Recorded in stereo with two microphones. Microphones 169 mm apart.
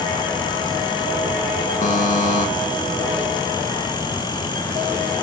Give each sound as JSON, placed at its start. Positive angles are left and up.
{"t": 1.8, "sound": "a buzzer", "side_deg": 50, "distance_m": 0.7}